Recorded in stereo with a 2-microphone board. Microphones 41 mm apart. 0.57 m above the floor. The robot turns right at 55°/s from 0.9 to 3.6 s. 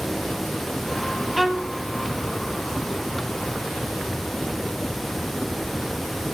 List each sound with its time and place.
1.4 s a violin: centre (ahead or behind), 1.4 m; by 1.7 s 20° right (ahead or behind), 1.4 m